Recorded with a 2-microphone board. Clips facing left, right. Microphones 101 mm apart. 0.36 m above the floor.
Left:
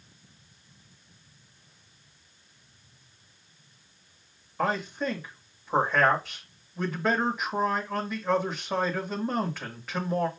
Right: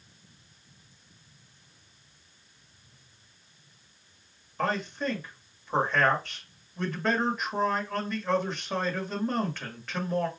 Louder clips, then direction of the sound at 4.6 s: Left 1 dB; 10° left (ahead or behind).